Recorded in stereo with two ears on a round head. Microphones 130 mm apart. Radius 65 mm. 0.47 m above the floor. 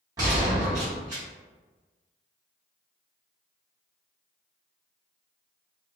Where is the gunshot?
25° right (ahead or behind), 1.5 m.